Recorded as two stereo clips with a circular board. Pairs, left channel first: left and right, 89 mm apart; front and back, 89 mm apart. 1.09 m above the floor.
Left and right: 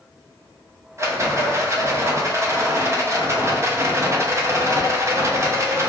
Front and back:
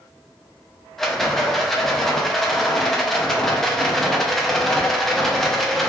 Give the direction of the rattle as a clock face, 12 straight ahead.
3 o'clock.